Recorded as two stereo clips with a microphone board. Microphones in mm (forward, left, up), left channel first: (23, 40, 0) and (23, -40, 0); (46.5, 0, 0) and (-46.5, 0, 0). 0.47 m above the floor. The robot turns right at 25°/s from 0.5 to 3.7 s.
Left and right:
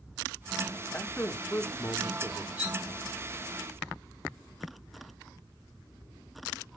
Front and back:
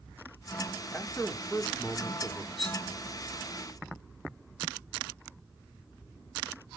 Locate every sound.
0.9 s a man speaking: 50° left, 0.9 m; by 2.5 s 90° left, 0.9 m
2.6 s cutlery clinking: 15° right, 6 m; by 2.8 s 10° right, 6 m